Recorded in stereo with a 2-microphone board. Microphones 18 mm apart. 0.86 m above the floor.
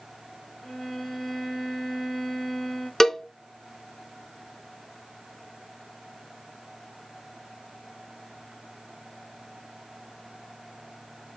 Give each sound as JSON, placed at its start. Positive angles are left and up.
{"t": 0.6, "sound": "a violin", "side_deg": 35, "distance_m": 1.3}
{"t": 3.0, "sound": "a cowbell", "side_deg": 25, "distance_m": 0.5}